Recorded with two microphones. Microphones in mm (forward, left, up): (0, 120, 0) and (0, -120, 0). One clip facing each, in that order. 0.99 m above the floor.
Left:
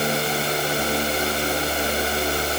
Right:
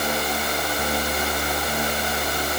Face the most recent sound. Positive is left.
No sound to turn to.